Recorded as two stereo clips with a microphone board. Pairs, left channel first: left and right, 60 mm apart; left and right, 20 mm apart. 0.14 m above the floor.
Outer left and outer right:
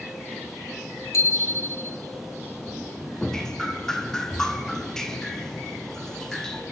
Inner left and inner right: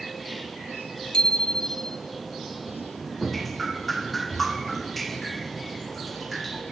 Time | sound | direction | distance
1.1 | a bicycle bell | 50° left (ahead or behind) | 3 m
3.2 | dripping | 10° left (ahead or behind) | 3 m